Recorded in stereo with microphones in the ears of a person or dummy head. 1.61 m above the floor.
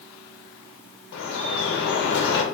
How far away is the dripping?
About 1.2 m.